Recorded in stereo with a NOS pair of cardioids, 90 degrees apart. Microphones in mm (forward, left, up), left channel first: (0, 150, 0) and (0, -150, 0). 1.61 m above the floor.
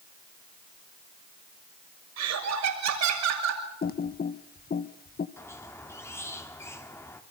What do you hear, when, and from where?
2.2 s laughter: 65° right, 6.5 m
3.8 s typing on a keyboard: 30° left, 1.5 m
5.4 s a squeak: 10° left, 3 m